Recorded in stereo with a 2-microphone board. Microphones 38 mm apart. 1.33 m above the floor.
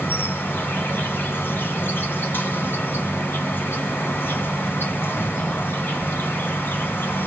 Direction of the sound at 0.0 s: 75° left (ahead or behind).